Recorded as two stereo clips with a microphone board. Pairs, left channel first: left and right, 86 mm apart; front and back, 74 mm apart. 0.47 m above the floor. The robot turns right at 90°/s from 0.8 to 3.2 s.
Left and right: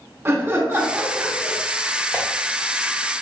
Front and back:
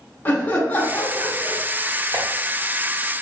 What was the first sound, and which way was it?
Laughter, 45° right.